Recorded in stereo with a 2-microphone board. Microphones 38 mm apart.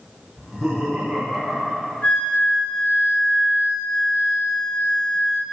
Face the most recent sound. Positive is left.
turn(degrees=35)  # may be behind; listen again after turning